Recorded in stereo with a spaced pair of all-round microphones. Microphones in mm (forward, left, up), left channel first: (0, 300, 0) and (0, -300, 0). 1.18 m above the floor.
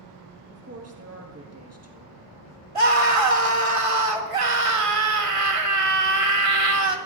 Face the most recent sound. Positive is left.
turn(degrees=-60)  # may be behind; listen again after turning